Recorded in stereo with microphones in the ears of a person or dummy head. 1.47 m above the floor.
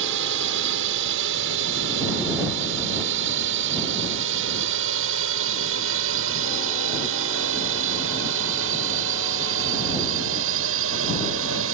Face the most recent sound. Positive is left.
turn(degrees=-80)